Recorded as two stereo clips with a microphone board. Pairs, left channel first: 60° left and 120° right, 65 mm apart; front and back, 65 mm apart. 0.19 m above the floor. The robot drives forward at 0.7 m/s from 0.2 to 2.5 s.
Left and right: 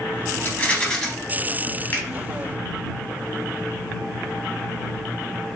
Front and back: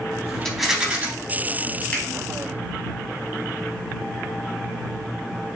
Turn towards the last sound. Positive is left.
turn(degrees=90)